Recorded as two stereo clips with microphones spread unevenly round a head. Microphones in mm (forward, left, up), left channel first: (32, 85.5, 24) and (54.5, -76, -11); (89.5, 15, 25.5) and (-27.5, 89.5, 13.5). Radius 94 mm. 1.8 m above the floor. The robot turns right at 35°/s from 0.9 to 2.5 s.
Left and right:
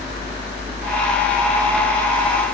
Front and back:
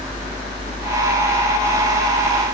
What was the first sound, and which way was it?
Only background noise.